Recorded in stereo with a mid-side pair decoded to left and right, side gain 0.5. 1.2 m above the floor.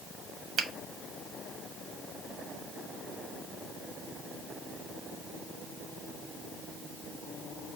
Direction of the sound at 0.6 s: 55° right.